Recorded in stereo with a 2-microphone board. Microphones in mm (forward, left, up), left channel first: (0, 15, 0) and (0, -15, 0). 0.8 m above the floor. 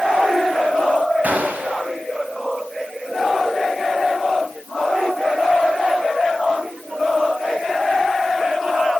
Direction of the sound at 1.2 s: 65° right (ahead or behind).